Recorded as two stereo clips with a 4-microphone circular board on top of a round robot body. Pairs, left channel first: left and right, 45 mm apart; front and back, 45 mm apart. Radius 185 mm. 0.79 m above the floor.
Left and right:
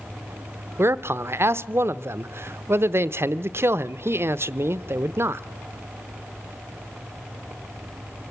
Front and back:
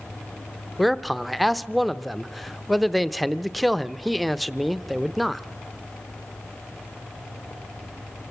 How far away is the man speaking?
About 0.7 m.